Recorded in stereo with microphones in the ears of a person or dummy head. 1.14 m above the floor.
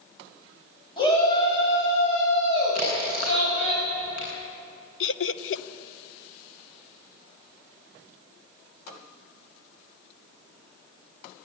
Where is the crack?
55° left (ahead or behind), 9.5 m.